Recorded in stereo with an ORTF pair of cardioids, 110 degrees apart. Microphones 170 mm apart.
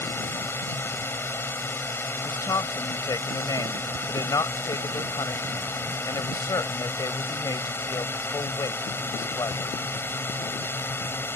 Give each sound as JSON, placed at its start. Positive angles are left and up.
{"t": 0.0, "sound": "a drone", "azimuth_deg": 10}
{"t": 2.2, "sound": "a woman speaking", "azimuth_deg": 20}